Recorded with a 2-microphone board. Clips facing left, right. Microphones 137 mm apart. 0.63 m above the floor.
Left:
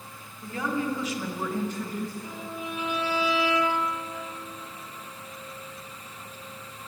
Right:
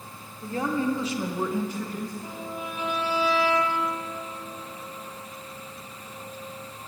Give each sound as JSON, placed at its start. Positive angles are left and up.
{"t": 0.4, "sound": "a woman speaking", "side_deg": -30, "distance_m": 2.0}
{"t": 2.2, "sound": "a violin", "side_deg": -45, "distance_m": 1.3}